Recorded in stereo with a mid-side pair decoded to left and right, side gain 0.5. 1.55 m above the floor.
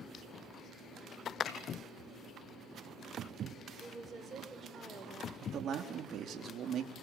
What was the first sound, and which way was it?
A snare drum, 60° left.